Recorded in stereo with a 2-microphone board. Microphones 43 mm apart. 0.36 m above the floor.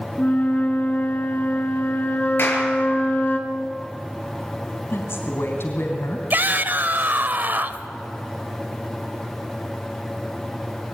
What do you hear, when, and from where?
0.2 s a flute: 40° left (ahead or behind), 3 m
2.4 s a clap: 60° left (ahead or behind), 6 m
4.9 s a woman speaking: 65° left (ahead or behind), 3 m
6.3 s a shout: 45° right (ahead or behind), 1.2 m